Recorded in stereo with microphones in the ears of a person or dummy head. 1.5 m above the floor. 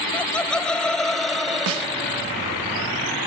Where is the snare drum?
75° right (ahead or behind).